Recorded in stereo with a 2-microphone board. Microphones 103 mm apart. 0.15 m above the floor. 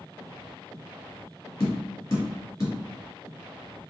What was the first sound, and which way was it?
Tapping, 35° left (ahead or behind).